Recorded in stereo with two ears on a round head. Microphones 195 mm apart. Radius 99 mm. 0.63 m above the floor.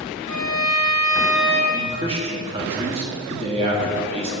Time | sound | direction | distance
0.3 | a violin | 70° right (ahead or behind) | 3 m
1.7 | a man speaking | 25° right (ahead or behind) | 1.2 m